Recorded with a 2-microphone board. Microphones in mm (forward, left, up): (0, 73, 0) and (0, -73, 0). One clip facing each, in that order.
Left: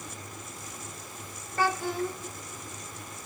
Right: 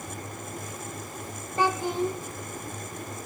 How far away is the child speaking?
About 1.0 m.